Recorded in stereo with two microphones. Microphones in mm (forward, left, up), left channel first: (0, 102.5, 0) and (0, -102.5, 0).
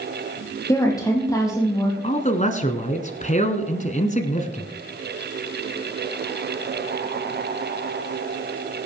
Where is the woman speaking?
15° left (ahead or behind), 4.5 m.